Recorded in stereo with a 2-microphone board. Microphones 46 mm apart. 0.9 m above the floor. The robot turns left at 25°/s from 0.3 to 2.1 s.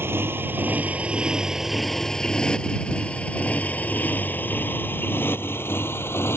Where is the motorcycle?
60° right (ahead or behind); by 6.4 s 65° left (ahead or behind).